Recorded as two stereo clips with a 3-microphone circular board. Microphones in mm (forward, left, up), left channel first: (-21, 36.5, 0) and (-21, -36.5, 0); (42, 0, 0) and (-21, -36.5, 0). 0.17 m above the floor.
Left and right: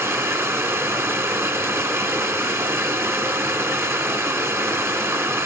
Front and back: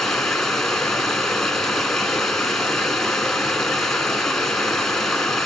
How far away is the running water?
About 1.1 m.